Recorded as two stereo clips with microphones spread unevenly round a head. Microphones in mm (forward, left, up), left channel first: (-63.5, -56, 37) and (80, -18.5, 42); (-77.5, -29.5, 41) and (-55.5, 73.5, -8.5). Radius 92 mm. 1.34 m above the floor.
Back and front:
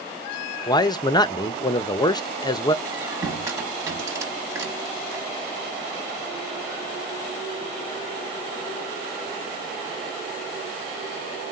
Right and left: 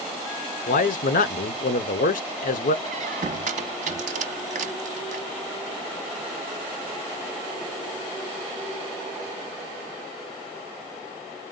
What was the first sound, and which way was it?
A man speaking, 105° right.